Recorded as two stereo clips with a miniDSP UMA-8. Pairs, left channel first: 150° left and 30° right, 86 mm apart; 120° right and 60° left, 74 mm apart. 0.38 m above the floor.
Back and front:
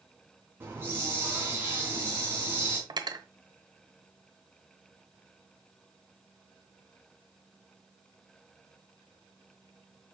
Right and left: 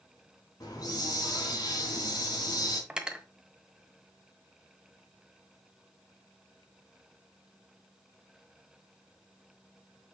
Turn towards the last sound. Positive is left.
turn(degrees=-15)